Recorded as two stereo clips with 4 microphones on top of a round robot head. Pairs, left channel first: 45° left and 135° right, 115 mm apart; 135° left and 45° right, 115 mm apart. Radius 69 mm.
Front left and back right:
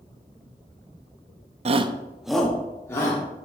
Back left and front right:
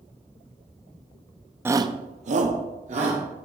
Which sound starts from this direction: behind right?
A shout, at 1.6 s.